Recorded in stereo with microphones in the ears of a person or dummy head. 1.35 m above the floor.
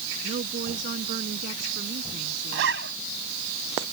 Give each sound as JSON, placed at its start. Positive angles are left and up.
{"t": 0.2, "sound": "a woman speaking", "side_deg": -45}
{"t": 2.5, "sound": "a zipper", "side_deg": -70}